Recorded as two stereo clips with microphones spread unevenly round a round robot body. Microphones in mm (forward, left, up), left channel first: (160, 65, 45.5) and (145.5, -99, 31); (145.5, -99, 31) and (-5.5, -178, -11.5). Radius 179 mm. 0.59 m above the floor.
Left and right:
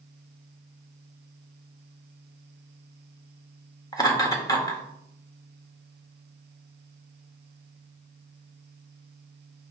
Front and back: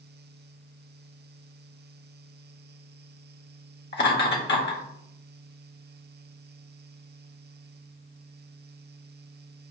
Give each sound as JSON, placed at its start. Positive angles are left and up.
{"t": 3.9, "sound": "laughter", "azimuth_deg": 15, "distance_m": 2.0}